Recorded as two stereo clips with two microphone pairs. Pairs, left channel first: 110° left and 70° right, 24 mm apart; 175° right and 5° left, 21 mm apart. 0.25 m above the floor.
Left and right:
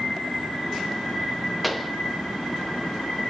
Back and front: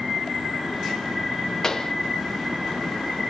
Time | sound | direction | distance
1.6 | a pop | 155° right | 0.6 m